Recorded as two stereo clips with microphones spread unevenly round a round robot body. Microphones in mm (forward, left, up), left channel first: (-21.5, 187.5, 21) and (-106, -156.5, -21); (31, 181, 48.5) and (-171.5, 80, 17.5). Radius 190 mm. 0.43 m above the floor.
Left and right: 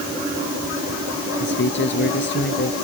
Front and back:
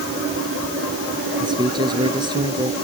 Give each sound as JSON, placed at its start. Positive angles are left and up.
{"t": 1.4, "sound": "a man speaking", "azimuth_deg": 135}